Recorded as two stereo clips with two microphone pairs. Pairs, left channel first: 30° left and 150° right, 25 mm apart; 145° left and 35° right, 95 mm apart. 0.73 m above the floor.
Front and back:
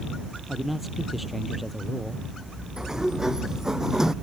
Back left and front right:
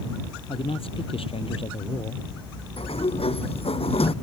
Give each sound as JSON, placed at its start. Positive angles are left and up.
{"t": 0.5, "sound": "a man speaking", "azimuth_deg": 125}
{"t": 2.8, "sound": "a sliding door", "azimuth_deg": 145}